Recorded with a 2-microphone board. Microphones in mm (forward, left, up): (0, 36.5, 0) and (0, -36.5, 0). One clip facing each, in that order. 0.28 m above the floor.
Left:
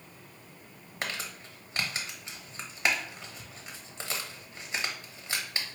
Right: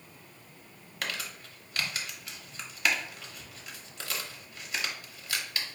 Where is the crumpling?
30° left (ahead or behind), 0.9 m.